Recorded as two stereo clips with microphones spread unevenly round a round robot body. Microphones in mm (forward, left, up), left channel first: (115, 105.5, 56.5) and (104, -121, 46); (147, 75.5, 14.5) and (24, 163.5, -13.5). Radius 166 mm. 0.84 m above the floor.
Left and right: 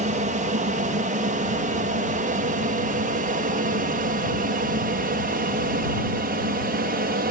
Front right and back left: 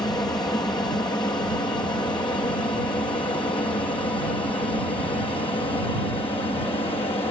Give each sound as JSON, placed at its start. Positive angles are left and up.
{"t": 0.0, "sound": "an aircraft", "azimuth_deg": -100}